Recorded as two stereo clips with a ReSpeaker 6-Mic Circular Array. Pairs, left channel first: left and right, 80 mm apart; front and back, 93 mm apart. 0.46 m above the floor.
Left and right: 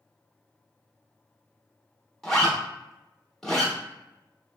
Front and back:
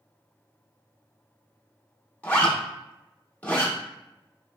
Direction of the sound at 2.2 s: 25° left.